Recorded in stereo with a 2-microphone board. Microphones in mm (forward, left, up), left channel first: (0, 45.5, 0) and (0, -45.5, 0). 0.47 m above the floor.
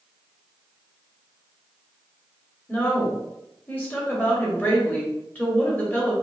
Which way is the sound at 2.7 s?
20° left (ahead or behind).